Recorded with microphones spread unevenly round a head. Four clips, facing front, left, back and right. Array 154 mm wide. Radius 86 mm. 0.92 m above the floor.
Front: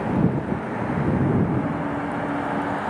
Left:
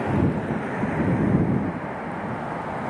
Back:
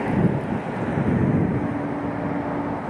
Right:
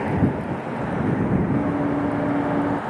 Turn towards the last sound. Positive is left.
turn(degrees=-85)